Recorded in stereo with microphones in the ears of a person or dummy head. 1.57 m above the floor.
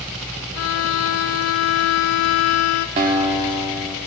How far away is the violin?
About 0.5 m.